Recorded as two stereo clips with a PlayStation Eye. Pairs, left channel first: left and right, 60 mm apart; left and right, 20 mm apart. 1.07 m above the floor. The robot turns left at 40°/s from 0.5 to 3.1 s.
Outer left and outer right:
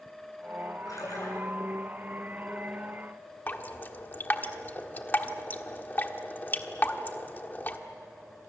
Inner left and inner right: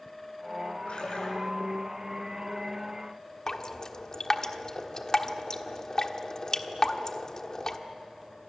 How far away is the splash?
About 8.5 m.